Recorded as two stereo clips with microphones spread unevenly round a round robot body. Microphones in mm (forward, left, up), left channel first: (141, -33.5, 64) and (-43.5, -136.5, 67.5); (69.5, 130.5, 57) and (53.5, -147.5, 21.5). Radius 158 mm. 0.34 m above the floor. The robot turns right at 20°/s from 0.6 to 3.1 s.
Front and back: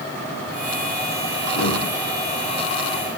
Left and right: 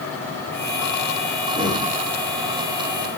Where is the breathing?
25° left, 6.5 m; by 1.9 s 30° left, 6.5 m.